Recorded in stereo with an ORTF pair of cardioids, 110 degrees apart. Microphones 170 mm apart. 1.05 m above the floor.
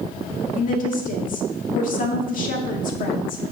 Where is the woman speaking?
55° left, 2 m.